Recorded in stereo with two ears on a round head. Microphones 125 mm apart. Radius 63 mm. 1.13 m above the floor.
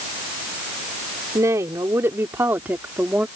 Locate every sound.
1.4 s a woman speaking: 20° right (ahead or behind); by 3.3 s 10° right (ahead or behind)